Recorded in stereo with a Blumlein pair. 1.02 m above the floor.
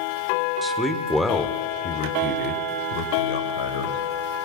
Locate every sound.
0.6 s a man speaking: 10° right, 2.5 m; by 4.0 s 65° left, 4 m